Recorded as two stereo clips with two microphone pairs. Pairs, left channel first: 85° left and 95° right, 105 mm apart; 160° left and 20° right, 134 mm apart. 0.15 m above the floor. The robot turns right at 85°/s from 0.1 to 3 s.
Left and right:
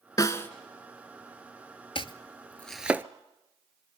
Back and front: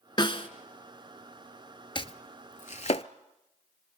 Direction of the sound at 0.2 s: 120° left.